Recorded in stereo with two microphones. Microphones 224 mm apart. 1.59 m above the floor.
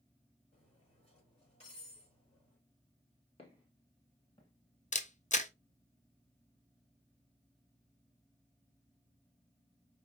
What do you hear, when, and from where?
0.5 s cutlery clinking: 30° left (ahead or behind), 3.5 m
3.4 s footsteps: 25° left (ahead or behind), 1.7 m; by 4.5 s 20° left (ahead or behind), 1.9 m
4.9 s a camera shutter: 35° left (ahead or behind), 0.5 m